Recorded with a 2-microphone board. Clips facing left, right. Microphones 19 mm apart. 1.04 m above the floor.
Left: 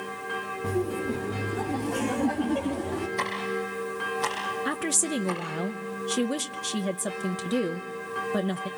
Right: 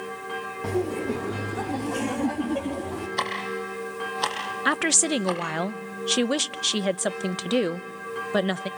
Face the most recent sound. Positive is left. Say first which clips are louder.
# right 9 dB
turn(degrees=-45)  # may be behind; listen again after turning